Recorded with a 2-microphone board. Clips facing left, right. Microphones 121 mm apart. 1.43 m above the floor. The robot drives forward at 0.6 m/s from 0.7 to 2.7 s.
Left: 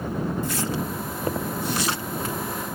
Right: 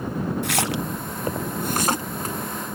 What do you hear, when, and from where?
0.4 s a splash: 75° right (ahead or behind); by 2.4 s 40° right (ahead or behind)